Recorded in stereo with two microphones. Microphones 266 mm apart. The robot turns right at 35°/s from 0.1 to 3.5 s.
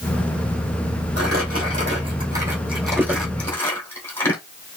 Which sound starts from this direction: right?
Crumpling, at 1.2 s.